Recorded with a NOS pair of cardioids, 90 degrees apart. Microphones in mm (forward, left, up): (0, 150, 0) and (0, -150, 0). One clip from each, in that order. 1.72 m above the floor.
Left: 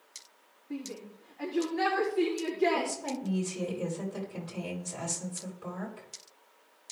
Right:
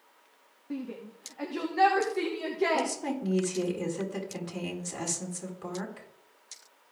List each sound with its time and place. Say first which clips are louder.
0.7 s a shout: right 2 dB; 65° right, 2.5 m
2.7 s a woman speaking: right 2 dB; 70° right, 5.5 m